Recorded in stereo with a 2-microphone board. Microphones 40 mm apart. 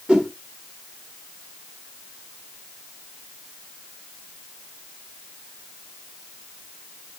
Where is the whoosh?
20° right (ahead or behind), 1.3 m.